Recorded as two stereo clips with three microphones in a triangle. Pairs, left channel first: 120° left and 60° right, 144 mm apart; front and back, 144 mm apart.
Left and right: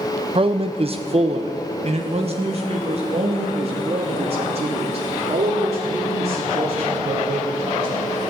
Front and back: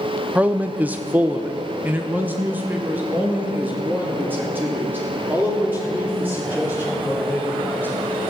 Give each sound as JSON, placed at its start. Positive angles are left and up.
{"t": 0.3, "sound": "a man speaking", "azimuth_deg": -100, "distance_m": 0.8}